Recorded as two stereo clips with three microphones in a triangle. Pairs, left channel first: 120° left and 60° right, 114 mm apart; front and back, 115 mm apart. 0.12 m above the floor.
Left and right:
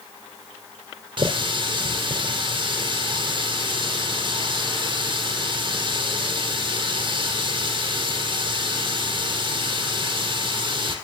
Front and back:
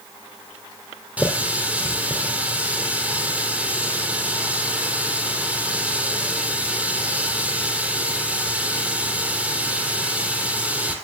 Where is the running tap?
100° right, 3 m.